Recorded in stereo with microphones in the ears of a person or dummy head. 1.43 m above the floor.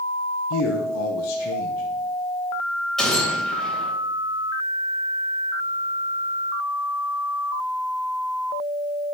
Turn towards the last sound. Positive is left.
turn(degrees=5)  # may be behind; listen again after turning